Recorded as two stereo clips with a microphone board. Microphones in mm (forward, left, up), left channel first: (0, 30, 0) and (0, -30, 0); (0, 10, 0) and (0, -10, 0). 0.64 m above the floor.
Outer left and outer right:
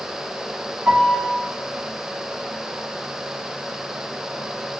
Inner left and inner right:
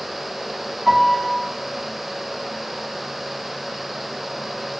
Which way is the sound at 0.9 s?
30° right (ahead or behind).